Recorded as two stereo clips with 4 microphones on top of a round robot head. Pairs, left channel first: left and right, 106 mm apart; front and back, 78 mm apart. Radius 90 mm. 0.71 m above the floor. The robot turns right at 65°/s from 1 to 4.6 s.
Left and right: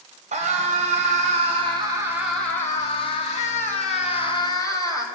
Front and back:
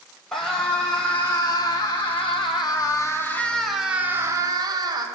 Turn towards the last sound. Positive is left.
turn(degrees=145)